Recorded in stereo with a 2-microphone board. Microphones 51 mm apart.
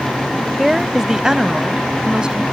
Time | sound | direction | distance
0.6 | a woman speaking | 5° right (ahead or behind) | ?